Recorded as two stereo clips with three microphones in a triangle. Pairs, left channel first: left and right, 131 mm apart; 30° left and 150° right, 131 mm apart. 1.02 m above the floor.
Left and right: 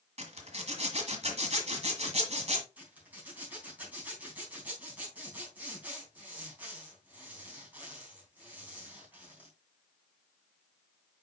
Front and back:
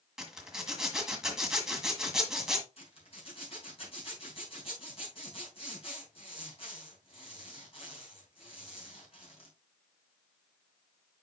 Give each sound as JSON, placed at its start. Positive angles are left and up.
{"t": 0.2, "sound": "a zipper", "azimuth_deg": -65, "distance_m": 1.7}
{"t": 2.8, "sound": "a zipper", "azimuth_deg": -15, "distance_m": 3.5}